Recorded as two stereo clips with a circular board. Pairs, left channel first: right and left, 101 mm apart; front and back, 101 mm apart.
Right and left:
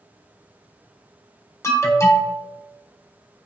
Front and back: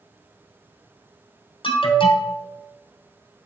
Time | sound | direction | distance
1.6 | an alarm | 30° right | 1.1 m